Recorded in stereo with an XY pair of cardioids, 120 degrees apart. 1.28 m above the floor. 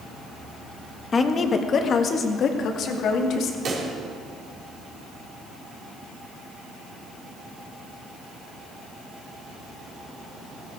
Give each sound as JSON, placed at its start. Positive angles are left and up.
{"t": 1.1, "sound": "a woman speaking", "azimuth_deg": 30, "distance_m": 1.4}
{"t": 3.6, "sound": "a pop", "azimuth_deg": -55, "distance_m": 4.0}